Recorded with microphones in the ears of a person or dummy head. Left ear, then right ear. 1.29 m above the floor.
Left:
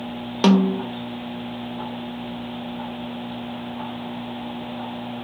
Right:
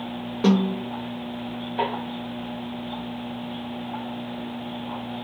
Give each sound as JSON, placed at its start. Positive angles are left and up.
{"t": 0.4, "sound": "a snare drum", "side_deg": 55, "distance_m": 0.8}